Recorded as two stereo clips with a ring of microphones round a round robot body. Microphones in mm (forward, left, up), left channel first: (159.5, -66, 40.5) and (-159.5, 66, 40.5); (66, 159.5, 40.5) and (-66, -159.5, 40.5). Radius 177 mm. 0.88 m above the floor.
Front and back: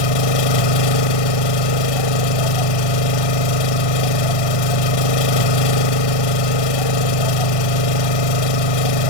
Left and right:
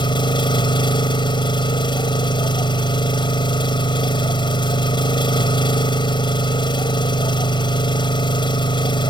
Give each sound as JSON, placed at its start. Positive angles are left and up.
{"t": 0.0, "sound": "an engine running", "azimuth_deg": -10}